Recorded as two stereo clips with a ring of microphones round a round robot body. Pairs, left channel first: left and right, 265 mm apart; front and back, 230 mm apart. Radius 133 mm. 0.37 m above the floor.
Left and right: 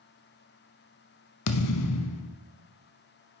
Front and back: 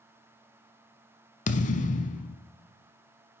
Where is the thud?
60° left, 0.6 m.